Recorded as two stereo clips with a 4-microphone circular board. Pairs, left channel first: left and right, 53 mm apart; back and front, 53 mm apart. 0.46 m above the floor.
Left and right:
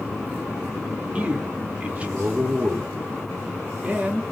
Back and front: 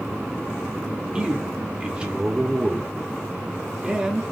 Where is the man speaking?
55° right, 0.8 m.